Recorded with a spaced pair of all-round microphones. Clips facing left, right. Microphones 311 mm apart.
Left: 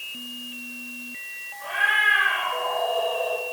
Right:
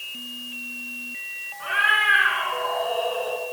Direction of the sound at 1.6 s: 70° right (ahead or behind).